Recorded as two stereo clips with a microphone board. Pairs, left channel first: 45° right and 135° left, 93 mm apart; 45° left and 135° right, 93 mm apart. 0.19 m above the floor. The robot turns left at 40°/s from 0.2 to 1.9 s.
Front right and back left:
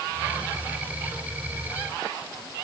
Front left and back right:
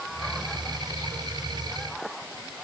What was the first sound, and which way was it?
Only background noise.